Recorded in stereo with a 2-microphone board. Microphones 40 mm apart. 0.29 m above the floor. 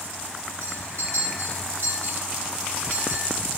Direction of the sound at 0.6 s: 75° right (ahead or behind).